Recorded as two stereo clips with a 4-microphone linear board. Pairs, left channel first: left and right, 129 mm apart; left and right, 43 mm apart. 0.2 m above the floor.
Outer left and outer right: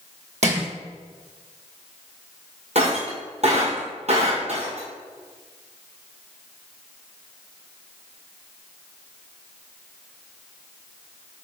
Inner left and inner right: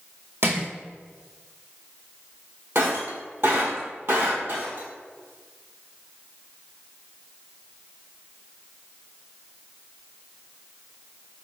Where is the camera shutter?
No camera shutter in this recording.